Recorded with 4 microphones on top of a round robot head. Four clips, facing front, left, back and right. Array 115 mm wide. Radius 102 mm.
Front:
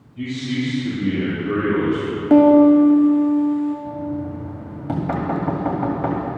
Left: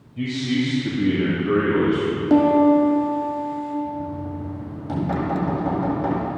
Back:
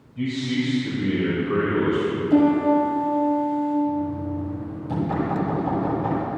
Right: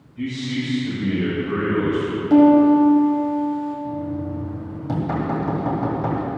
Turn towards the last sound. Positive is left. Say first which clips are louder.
# right 2 dB, back 1 dB
turn(degrees=-15)